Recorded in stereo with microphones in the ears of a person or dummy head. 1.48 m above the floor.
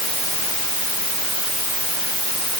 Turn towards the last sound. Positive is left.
No sound to turn to.